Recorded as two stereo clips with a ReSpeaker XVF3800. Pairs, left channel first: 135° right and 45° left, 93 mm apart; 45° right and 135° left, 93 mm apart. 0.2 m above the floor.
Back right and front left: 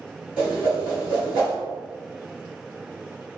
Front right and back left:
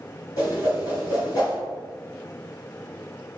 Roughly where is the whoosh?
Ahead right.